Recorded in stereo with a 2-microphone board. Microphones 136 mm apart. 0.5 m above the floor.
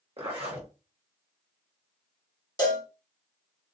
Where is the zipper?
45° right (ahead or behind), 1.2 m.